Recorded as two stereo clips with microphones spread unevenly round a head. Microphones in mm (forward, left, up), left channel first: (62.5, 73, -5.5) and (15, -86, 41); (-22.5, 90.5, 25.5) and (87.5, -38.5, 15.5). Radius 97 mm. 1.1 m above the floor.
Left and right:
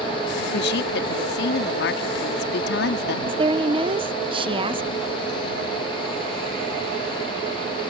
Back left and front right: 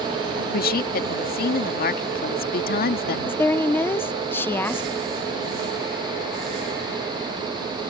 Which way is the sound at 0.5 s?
95° left.